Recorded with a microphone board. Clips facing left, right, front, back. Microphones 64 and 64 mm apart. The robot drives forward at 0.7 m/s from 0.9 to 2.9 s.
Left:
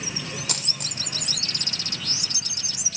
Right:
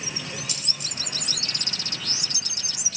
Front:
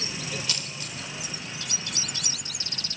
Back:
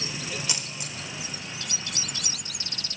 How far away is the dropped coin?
About 0.8 m.